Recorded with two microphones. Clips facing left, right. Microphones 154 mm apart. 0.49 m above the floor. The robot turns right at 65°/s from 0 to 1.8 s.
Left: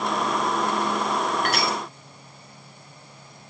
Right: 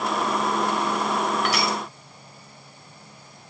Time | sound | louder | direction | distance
1.4 | crushing | even | 50° left (ahead or behind) | 5 m